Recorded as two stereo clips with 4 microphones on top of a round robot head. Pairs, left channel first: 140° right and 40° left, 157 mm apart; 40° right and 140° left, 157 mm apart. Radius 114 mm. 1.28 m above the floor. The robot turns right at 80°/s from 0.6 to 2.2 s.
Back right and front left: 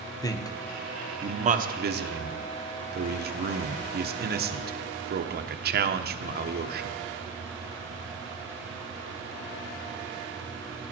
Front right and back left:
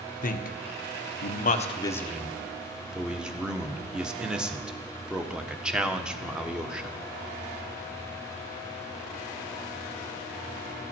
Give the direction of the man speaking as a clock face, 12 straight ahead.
2 o'clock.